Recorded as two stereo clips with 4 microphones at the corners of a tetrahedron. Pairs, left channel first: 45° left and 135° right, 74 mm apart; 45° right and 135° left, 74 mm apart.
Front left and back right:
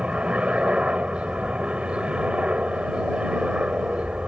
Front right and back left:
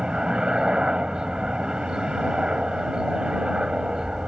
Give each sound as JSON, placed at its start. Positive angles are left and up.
{"t": 0.0, "sound": "a helicopter", "azimuth_deg": -170}